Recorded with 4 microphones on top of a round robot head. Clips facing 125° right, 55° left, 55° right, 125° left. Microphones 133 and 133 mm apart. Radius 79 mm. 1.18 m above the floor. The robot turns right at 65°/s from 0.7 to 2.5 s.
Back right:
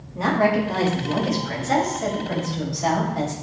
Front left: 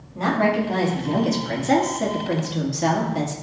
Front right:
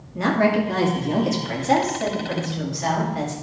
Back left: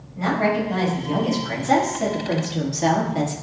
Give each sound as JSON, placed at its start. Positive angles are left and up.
{"t": 0.1, "sound": "a woman speaking", "azimuth_deg": -40, "distance_m": 2.0}